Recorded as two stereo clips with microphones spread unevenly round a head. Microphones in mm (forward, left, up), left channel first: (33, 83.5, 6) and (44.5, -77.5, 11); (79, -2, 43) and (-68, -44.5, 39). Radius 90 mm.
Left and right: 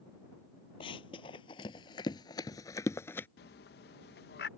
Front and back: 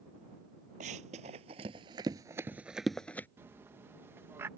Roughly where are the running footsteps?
Behind left.